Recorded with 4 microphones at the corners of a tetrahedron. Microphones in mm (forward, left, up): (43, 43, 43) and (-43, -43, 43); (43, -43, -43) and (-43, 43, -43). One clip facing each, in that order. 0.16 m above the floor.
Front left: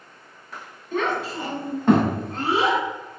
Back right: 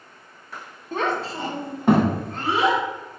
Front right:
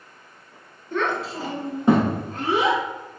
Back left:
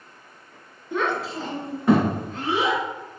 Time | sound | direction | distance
0.9 | a child speaking | 155° right | 0.7 m